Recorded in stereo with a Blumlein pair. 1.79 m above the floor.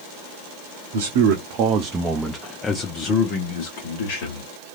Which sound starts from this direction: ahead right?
A man speaking, at 0.9 s.